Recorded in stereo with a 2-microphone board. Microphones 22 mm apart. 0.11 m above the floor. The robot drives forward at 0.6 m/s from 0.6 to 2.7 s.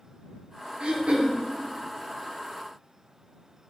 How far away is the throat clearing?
About 0.8 m.